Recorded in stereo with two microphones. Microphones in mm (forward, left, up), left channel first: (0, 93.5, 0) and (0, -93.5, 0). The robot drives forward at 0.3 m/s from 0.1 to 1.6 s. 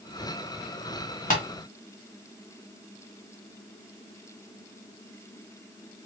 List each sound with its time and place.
1.3 s tapping: 45° left (ahead or behind), 1.6 m